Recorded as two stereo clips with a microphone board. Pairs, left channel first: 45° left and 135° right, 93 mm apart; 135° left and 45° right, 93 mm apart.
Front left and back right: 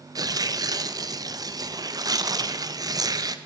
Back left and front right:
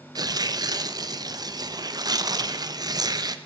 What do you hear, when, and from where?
0.1 s tearing paper: 90° right, 0.6 m